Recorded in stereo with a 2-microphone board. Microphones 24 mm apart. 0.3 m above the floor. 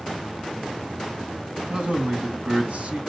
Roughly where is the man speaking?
Right.